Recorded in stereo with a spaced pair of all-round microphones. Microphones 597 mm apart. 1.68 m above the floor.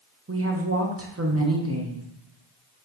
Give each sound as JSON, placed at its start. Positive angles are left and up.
{"t": 0.3, "sound": "a woman speaking", "side_deg": -25, "distance_m": 0.7}